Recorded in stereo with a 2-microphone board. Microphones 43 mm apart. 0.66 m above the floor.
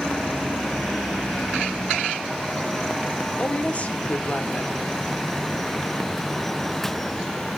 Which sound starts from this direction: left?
A woman speaking, at 3.4 s.